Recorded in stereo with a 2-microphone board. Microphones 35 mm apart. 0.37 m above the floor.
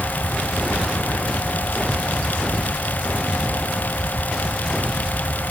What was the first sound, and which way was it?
Only background noise.